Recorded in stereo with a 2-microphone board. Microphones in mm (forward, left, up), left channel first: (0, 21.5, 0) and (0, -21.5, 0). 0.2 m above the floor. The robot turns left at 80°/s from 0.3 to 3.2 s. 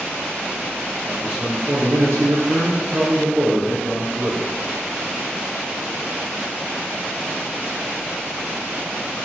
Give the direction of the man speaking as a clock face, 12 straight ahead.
12 o'clock.